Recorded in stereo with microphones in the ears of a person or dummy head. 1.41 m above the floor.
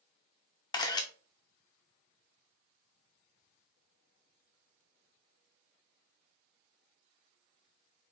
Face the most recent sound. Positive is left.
turn(degrees=20)  # may be behind; listen again after turning